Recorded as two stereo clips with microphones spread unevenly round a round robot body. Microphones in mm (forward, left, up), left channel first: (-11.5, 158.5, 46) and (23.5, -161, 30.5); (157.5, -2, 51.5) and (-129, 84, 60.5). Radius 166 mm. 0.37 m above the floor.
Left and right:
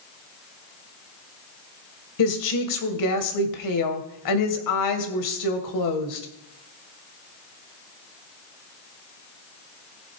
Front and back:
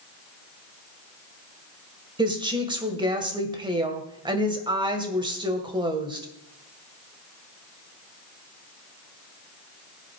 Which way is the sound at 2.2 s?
90° left.